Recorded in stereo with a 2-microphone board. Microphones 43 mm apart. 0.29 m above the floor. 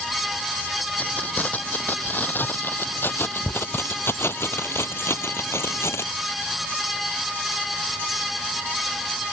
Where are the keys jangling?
40° left (ahead or behind); by 6.1 s 80° left.